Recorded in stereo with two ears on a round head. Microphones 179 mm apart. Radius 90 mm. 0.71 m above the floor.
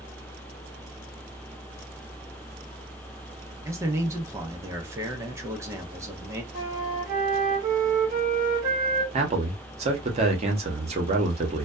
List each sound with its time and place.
3.6 s a man speaking: 15° right (ahead or behind), 0.5 m
6.5 s a flute: 40° right (ahead or behind), 1.0 m
9.1 s a man speaking: 30° right (ahead or behind), 0.8 m